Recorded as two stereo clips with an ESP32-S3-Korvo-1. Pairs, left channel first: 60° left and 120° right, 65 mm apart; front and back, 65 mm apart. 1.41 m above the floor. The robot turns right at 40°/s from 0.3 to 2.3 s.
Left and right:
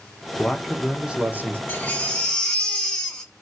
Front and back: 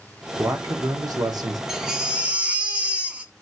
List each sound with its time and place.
0.4 s a man speaking: 140° left, 1.0 m; by 1.6 s 175° right, 1.0 m
1.7 s a baby crying: 100° left, 1.2 m; by 3.3 s 125° left, 1.2 m